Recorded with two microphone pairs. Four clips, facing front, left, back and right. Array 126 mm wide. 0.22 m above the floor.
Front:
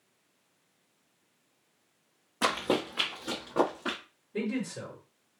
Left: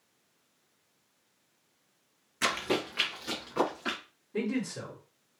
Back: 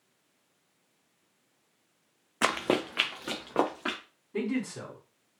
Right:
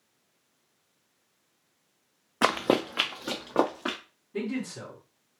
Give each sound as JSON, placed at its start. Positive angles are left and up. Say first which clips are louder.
{"t": 2.4, "sound": "running footsteps", "louder": "right 7 dB, back 1 dB", "azimuth_deg": -95, "distance_m": 0.6}
{"t": 4.3, "sound": "a man speaking", "louder": "even, back 1 dB", "azimuth_deg": 170, "distance_m": 1.9}